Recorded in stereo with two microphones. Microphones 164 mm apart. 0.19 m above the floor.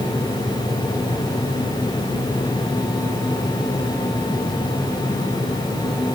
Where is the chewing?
No chewing in this recording.